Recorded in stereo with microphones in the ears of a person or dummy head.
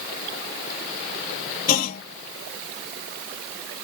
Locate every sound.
1.7 s a clunk: 50° left (ahead or behind)